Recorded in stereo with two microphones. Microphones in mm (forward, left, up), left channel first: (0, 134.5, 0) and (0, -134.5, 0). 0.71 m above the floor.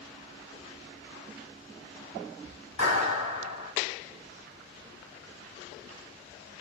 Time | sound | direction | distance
2.8 | a clap | 75° left (ahead or behind) | 2 m